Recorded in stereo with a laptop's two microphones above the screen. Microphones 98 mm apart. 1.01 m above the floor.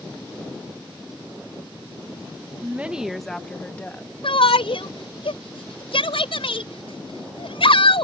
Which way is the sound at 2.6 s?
25° right (ahead or behind).